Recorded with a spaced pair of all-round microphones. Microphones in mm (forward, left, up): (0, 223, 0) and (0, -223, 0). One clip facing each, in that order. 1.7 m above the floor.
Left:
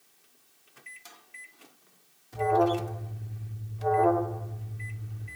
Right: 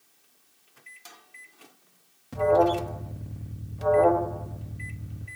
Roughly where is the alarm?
Right.